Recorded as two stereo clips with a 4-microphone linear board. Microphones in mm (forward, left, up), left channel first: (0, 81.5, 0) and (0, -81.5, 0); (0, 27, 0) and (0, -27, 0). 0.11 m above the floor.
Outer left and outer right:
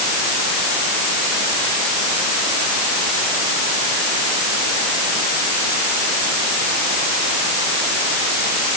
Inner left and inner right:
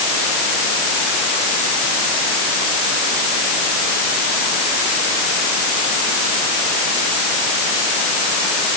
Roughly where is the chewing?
I don't hear chewing.